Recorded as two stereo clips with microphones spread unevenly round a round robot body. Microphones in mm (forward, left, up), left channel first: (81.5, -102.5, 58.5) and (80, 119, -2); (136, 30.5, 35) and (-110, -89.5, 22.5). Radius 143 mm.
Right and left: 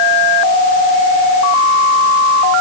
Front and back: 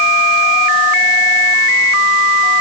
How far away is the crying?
No crying in this recording.